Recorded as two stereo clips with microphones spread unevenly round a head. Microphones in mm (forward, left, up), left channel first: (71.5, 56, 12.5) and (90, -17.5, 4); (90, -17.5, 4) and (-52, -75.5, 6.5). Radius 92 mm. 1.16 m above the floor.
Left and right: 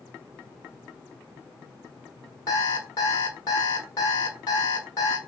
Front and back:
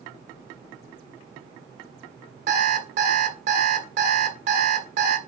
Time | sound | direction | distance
2.5 | an alarm clock | 155° left | 1.4 m